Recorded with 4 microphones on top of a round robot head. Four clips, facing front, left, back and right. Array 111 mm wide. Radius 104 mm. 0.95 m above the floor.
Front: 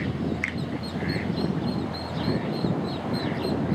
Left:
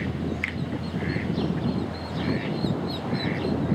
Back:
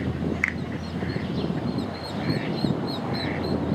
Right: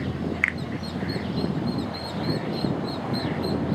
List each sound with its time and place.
0.4 s a finger snap: 125° right, 0.9 m